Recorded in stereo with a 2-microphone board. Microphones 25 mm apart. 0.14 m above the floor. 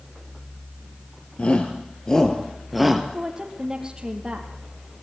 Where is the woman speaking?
25° right (ahead or behind), 4 m.